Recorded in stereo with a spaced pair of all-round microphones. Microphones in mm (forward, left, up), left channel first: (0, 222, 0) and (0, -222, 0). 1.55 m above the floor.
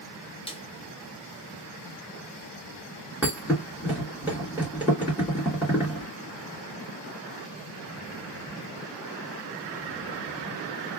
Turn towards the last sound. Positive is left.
turn(degrees=-5)  # may be behind; listen again after turning